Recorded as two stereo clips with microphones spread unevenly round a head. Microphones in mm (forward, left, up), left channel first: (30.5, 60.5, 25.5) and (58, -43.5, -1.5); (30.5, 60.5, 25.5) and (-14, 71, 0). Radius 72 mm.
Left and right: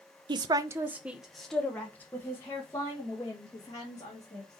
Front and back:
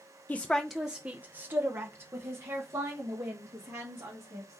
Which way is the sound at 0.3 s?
95° right.